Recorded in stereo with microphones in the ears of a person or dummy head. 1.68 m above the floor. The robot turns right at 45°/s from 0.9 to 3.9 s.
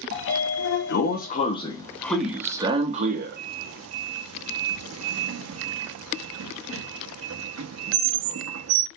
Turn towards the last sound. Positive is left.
turn(degrees=-75)  # may be behind; listen again after turning